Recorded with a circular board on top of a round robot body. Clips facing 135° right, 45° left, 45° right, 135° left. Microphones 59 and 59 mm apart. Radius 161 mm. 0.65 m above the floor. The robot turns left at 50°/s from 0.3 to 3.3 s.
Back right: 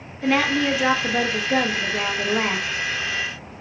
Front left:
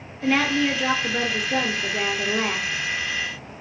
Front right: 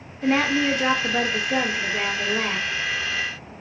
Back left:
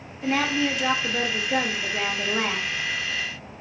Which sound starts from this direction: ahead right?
A woman speaking, at 0.2 s.